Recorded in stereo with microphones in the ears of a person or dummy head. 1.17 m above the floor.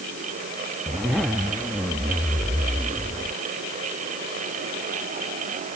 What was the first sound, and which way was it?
A zipper, 5° right (ahead or behind).